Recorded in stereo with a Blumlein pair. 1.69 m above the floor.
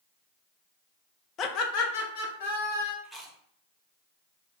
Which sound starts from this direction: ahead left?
Laughter, at 1.4 s.